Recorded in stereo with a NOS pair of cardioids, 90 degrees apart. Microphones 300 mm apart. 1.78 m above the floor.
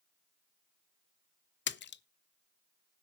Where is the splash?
40° left, 0.6 m.